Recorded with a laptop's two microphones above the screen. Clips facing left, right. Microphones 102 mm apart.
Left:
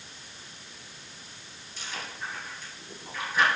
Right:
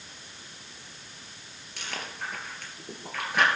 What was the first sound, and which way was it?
Chewing, 75° right (ahead or behind).